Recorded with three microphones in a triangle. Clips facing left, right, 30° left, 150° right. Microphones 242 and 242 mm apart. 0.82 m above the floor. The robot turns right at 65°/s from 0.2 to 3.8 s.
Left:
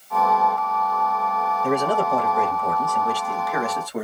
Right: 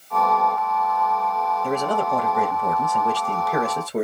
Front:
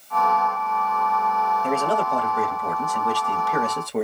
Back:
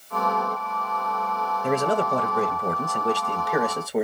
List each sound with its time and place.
1.6 s a man speaking: 150° left, 1.0 m; by 4.0 s 70° right, 1.0 m